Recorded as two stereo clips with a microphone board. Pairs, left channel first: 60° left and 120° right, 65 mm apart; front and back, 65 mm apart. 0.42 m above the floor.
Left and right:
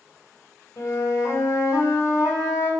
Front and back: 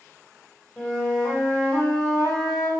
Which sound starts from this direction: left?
A flute, at 0.8 s.